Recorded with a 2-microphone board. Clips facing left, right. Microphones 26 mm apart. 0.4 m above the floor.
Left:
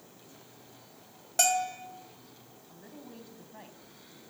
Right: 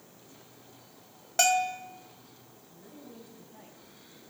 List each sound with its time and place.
1.4 s a bell: 20° right (ahead or behind), 1.5 m
2.7 s a woman speaking: 35° left (ahead or behind), 2.5 m